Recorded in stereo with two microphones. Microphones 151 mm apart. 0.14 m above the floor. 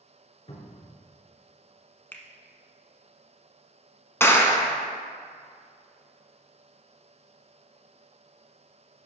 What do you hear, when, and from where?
0.5 s a cupboard door: 45° left (ahead or behind), 1.6 m
2.1 s a finger snap: 15° left (ahead or behind), 0.8 m
4.2 s a clap: 15° left (ahead or behind), 0.8 m